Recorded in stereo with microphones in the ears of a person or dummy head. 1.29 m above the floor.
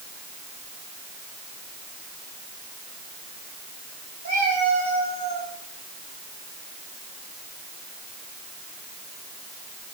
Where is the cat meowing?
50° right (ahead or behind), 7.5 m.